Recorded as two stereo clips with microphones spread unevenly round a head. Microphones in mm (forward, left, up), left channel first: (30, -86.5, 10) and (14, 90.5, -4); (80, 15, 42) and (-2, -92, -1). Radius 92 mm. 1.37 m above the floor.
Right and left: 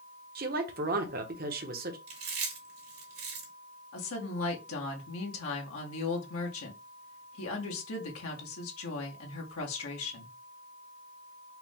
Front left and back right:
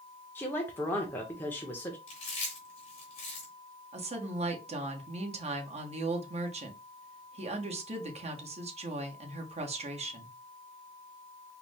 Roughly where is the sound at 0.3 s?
Behind left.